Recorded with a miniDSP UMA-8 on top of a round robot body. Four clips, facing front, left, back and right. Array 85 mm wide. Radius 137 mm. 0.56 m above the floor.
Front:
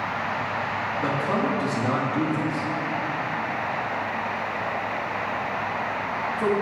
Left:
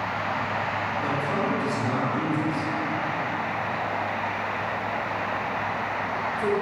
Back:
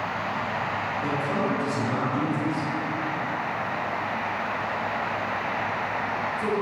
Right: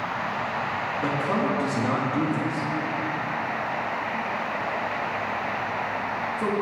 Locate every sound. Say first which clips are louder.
1.0 s a man speaking: right 3 dB, front 3 dB; 40° right, 1.2 m